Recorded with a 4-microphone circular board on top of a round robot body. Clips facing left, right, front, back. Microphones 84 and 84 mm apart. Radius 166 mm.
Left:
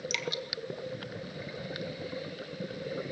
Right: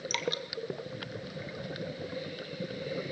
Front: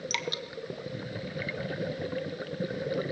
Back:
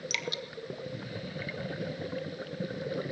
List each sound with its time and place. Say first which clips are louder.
0.1 s dripping: right 4 dB, front 2 dB; 45° right, 1.5 m